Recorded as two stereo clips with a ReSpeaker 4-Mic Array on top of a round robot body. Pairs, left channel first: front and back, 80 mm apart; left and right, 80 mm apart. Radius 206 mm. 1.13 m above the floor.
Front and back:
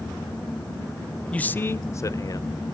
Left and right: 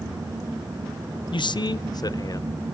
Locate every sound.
1.3 s a man speaking: 75° left, 0.6 m; by 2.7 s 40° left, 1.1 m